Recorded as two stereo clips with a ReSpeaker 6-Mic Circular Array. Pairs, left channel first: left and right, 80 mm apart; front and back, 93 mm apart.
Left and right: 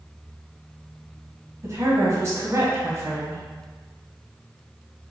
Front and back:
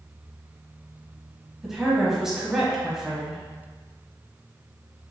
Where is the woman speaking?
100° right, 1.2 m.